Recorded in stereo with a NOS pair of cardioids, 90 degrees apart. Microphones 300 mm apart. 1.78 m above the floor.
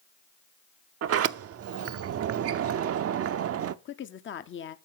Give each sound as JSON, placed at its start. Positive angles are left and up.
{"t": 1.0, "sound": "a sliding door", "azimuth_deg": -50, "distance_m": 0.6}
{"t": 3.9, "sound": "a woman speaking", "azimuth_deg": 40, "distance_m": 0.8}